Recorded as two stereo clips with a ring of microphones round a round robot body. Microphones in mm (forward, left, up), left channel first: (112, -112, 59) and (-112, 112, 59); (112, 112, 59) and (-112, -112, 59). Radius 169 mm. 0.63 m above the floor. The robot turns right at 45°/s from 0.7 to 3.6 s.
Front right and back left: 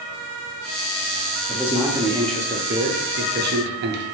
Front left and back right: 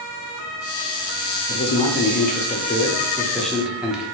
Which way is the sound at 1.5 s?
45° left.